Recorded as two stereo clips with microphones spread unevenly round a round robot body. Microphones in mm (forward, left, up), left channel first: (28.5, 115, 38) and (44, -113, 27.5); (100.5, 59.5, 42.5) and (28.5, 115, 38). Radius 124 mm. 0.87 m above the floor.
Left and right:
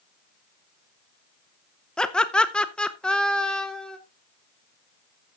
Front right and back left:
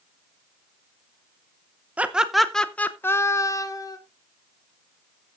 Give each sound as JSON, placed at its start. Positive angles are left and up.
{"t": 2.0, "sound": "laughter", "azimuth_deg": 180, "distance_m": 0.8}